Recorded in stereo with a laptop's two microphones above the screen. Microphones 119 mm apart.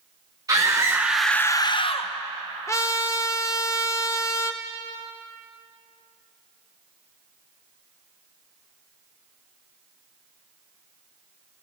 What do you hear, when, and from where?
0.5 s a scream: 35° right (ahead or behind), 1.6 m; by 2.1 s 55° left (ahead or behind), 1.3 m
2.7 s a trumpet: 25° left (ahead or behind), 0.7 m